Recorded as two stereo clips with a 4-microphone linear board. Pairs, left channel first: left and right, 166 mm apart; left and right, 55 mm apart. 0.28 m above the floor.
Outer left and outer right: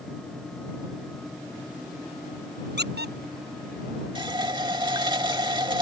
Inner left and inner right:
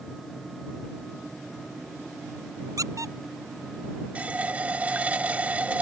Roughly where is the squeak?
Right.